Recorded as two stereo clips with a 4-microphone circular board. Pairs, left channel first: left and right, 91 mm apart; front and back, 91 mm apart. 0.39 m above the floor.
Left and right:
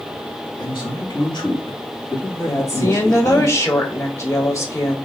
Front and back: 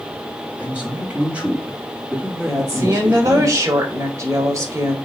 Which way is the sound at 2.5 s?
135° left.